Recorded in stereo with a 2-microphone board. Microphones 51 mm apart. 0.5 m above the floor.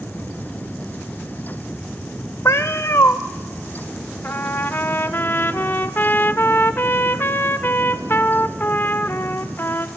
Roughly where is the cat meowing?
Left.